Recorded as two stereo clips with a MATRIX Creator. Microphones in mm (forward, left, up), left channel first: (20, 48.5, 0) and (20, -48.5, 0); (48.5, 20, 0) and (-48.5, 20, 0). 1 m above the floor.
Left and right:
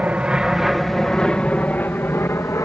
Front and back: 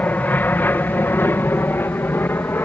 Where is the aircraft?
40° right; by 2.6 s 55° left.